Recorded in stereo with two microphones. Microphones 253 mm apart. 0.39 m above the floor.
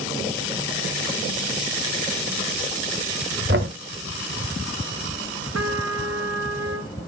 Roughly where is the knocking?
Right.